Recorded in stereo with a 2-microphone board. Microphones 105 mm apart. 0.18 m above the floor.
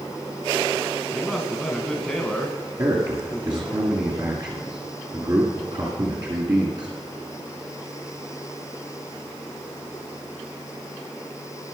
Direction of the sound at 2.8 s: 45° right (ahead or behind).